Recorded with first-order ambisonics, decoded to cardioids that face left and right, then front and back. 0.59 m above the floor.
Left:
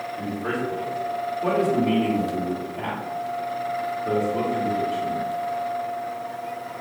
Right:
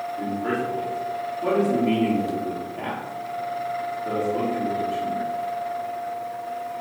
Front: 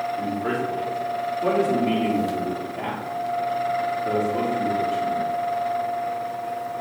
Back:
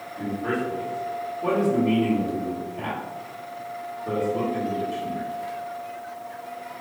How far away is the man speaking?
About 1.3 m.